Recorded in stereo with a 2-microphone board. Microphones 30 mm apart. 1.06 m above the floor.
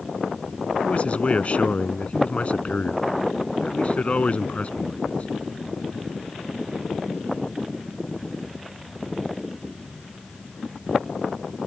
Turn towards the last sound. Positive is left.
turn(degrees=45)  # may be behind; listen again after turning